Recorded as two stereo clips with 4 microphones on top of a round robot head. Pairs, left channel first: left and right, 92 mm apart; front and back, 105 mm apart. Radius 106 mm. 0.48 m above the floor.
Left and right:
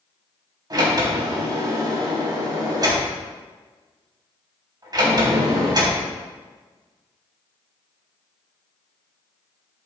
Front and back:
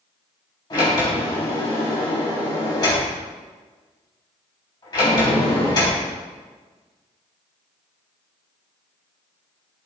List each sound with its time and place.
0.7 s a sliding door: 50° right, 3.5 m